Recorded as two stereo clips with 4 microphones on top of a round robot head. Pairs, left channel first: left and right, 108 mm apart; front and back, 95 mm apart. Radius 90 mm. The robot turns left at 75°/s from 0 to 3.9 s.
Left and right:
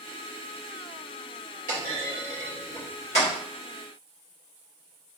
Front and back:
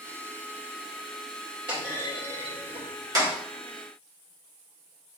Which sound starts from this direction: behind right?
A clunk, at 1.7 s.